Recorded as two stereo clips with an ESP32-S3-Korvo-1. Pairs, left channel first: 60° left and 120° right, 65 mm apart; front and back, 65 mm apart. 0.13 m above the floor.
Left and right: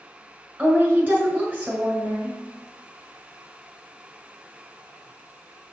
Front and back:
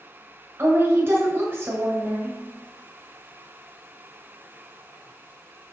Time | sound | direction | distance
0.6 | a woman speaking | 170° right | 1.3 m